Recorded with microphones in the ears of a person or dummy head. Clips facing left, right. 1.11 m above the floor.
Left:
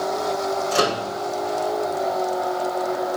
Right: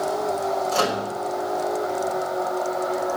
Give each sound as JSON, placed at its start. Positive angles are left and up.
{"t": 0.7, "sound": "a microwave", "side_deg": 50, "distance_m": 3.0}